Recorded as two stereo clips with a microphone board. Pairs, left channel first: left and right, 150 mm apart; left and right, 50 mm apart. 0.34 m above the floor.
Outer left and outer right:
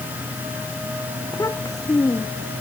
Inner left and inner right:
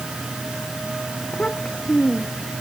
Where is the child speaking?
25° left (ahead or behind); by 2.5 s 20° left (ahead or behind).